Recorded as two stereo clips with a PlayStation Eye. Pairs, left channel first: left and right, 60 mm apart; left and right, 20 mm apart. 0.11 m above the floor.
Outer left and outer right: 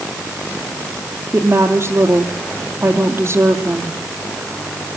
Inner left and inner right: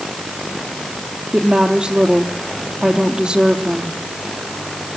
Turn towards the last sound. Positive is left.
turn(degrees=-45)  # may be behind; listen again after turning